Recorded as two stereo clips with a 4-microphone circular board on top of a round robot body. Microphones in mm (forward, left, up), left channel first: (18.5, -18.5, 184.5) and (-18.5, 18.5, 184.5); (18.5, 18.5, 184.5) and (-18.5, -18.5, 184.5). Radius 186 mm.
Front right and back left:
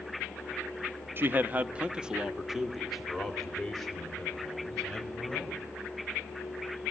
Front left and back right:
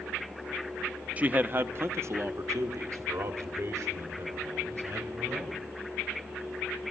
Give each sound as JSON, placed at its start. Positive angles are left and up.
{"t": 1.2, "sound": "a man speaking", "azimuth_deg": 170, "distance_m": 1.2}